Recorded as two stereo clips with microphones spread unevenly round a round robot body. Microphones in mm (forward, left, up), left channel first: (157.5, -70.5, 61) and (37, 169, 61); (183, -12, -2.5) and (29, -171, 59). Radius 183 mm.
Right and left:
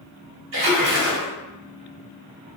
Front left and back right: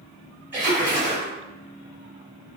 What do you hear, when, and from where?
0.5 s a splash: 135° left, 1.2 m